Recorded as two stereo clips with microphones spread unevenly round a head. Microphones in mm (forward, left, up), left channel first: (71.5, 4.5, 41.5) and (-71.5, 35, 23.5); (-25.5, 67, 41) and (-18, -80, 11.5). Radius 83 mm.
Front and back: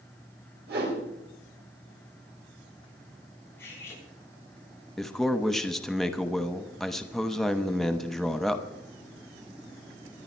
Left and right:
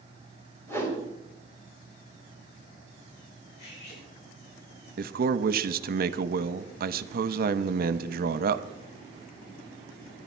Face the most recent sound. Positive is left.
turn(degrees=-100)